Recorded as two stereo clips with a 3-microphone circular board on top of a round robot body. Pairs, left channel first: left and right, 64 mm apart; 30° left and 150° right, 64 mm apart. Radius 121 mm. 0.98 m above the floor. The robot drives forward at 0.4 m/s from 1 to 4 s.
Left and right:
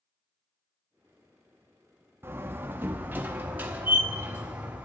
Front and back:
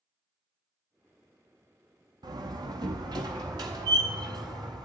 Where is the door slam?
145° right, 1.3 m; by 4.9 s 155° right, 1.9 m.